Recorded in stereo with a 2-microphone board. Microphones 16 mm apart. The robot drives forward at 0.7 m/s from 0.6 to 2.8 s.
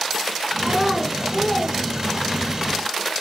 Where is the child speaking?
15° left (ahead or behind), 1.6 m.